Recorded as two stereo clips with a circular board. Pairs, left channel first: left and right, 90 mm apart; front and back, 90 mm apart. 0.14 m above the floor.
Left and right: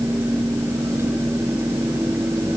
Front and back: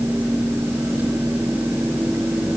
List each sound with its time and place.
Only background noise.